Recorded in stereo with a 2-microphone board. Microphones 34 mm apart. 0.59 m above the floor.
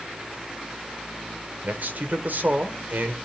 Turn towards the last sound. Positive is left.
turn(degrees=-65)  # may be behind; listen again after turning